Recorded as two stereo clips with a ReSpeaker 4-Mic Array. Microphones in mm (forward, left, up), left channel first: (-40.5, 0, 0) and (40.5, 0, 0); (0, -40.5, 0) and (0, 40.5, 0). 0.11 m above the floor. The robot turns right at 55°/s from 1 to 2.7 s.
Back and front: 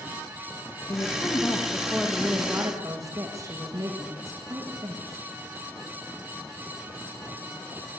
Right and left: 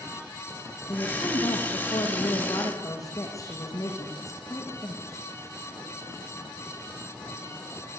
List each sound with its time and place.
0.9 s a woman speaking: 140° right, 7.5 m; by 5.3 s 45° right, 7.5 m